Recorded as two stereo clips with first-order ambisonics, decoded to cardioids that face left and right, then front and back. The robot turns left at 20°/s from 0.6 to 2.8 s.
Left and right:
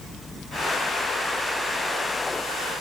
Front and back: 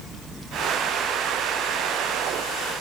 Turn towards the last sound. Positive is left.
No sound to turn to.